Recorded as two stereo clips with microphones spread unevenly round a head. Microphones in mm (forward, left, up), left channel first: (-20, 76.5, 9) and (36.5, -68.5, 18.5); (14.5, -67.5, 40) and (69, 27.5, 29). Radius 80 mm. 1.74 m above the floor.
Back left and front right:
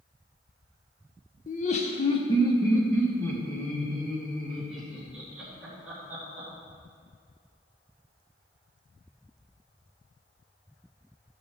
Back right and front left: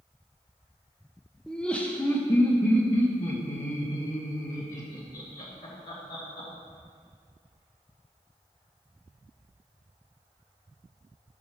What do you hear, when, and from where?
1.5 s laughter: 150° left, 1.0 m; by 6.5 s 150° right, 3 m